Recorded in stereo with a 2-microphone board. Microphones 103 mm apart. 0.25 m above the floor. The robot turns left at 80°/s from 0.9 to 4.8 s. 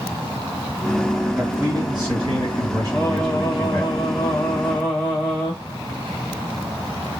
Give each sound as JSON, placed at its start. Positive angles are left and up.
{"t": 1.4, "sound": "a man speaking", "azimuth_deg": -15, "distance_m": 2.5}
{"t": 2.9, "sound": "singing", "azimuth_deg": 165, "distance_m": 1.3}